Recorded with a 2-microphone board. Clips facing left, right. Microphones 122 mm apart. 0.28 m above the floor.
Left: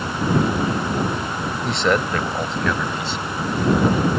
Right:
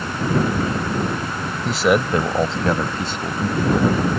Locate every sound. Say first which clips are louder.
1.6 s a man speaking: right 3 dB; centre (ahead or behind); by 3.9 s 60° right (ahead or behind)